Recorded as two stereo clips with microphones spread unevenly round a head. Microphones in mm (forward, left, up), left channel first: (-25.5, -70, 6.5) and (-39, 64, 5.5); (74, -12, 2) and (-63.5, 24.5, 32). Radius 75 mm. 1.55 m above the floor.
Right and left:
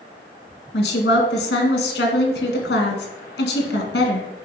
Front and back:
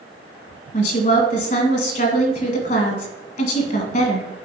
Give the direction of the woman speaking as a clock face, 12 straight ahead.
2 o'clock.